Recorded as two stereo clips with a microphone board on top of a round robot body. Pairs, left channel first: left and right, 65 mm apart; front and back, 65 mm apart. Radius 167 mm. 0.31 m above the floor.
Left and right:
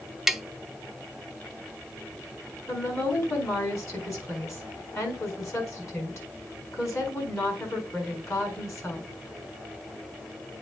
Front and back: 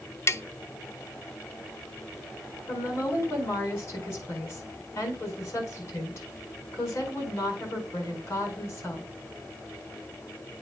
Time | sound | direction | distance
0.3 | tapping | 10° right | 0.9 m
2.7 | a woman speaking | 45° left | 5 m